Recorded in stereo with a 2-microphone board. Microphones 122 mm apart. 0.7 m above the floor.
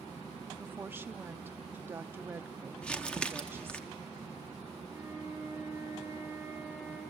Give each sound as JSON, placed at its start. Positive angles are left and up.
{"t": 0.6, "sound": "a woman speaking", "side_deg": -15, "distance_m": 0.7}
{"t": 2.8, "sound": "crumpling", "side_deg": 10, "distance_m": 0.9}
{"t": 4.9, "sound": "a flute", "side_deg": -20, "distance_m": 9.0}